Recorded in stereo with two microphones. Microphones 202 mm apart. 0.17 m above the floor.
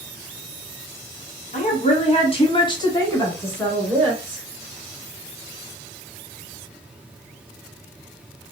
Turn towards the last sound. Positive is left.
turn(degrees=0)  # may be behind; listen again after turning